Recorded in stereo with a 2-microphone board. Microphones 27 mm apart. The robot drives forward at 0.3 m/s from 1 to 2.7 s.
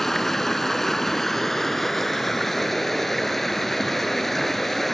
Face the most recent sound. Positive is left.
turn(degrees=5)  # may be behind; listen again after turning